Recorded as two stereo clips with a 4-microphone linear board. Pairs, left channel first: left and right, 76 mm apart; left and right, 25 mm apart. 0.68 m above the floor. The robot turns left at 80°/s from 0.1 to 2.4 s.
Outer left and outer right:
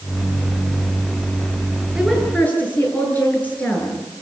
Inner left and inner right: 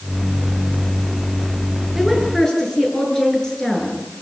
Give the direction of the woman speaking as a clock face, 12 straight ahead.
6 o'clock.